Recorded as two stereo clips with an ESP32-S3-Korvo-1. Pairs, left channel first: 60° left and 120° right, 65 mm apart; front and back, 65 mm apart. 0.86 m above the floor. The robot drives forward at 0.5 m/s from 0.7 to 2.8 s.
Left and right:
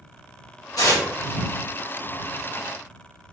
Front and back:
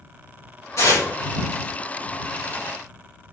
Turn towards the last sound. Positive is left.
turn(degrees=60)